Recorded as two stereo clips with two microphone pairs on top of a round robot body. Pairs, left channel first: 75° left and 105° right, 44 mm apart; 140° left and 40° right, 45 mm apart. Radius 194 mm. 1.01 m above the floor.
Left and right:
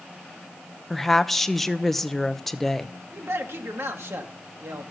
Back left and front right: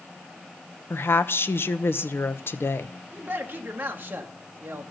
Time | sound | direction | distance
0.9 | a woman speaking | 165° left | 1.1 m
3.1 | a man speaking | 90° right | 1.8 m